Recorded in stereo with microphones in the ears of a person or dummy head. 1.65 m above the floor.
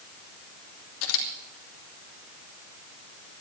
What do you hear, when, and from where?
1.0 s a camera shutter: 70° left (ahead or behind), 2 m